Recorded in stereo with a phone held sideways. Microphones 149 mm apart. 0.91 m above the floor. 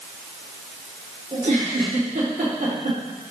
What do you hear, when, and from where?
1.3 s a giggle: 60° right (ahead or behind), 2 m